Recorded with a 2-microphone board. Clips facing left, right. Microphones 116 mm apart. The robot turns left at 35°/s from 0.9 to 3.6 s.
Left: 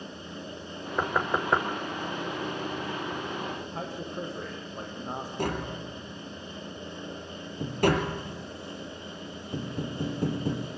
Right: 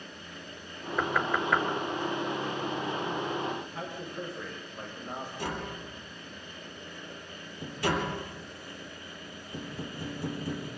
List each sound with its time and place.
1.0 s knocking: 15° left (ahead or behind), 1.5 m; by 1.6 s 35° left (ahead or behind), 1.5 m
3.6 s a man speaking: 40° left (ahead or behind), 6.5 m
5.4 s tapping: 55° left (ahead or behind), 3.5 m